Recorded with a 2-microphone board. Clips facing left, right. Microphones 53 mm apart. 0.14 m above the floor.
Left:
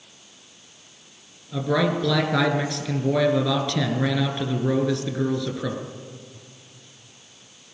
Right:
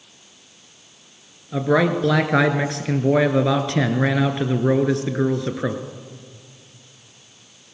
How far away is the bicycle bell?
I don't hear a bicycle bell.